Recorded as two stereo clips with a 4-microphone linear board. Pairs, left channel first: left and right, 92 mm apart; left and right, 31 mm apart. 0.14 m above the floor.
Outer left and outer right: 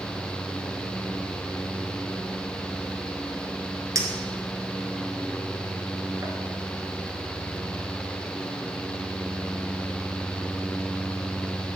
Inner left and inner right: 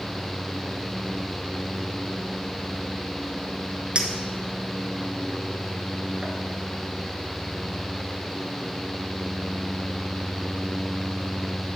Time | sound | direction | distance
4.0 | a clink | 40° right (ahead or behind) | 1.1 m